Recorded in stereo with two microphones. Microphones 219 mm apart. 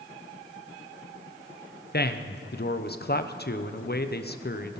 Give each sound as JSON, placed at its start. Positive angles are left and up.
{"t": 1.9, "sound": "a man speaking", "side_deg": 45, "distance_m": 0.8}